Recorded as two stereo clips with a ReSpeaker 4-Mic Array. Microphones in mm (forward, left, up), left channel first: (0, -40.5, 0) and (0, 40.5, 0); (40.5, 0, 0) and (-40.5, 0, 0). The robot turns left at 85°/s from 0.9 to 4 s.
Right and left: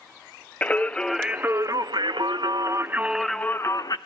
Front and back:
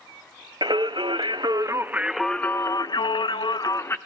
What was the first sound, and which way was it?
Singing, 160° right.